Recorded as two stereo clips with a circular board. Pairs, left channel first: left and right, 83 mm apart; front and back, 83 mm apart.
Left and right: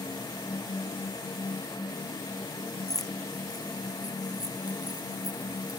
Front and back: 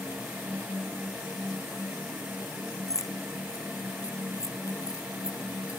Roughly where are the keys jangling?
Ahead left.